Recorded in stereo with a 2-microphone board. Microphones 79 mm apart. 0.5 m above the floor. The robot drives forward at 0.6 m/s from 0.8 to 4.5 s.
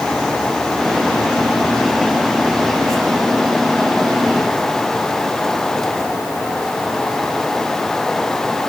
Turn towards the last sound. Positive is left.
No sound to turn to.